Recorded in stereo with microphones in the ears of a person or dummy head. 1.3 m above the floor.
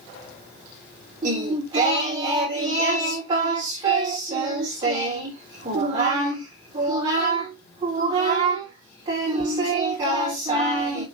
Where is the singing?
20° right (ahead or behind), 2.5 m.